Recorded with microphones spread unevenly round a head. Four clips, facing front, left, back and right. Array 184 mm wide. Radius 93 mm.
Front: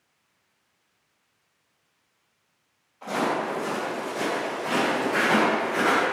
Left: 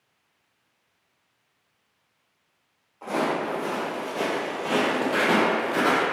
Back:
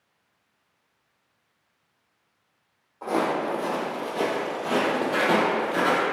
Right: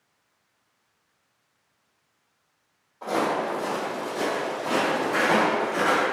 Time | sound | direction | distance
3.0 | footsteps | 160° right | 1.8 m